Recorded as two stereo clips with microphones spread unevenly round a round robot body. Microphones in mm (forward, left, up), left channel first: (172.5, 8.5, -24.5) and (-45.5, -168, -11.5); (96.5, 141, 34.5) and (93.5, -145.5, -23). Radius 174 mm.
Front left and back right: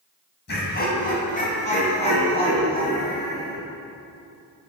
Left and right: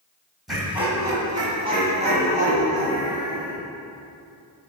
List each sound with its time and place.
0.5 s laughter: 10° right, 2.5 m; by 3.6 s 35° right, 4.5 m